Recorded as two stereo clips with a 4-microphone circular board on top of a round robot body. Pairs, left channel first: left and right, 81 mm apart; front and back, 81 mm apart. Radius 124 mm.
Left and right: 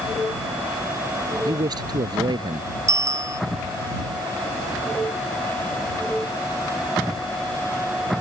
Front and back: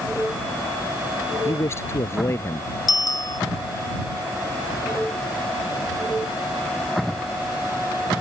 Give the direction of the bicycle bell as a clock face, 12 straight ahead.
1 o'clock.